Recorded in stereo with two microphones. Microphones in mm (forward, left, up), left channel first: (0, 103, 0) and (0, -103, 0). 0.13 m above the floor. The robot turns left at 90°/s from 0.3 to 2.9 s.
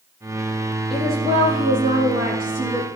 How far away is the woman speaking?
About 5 m.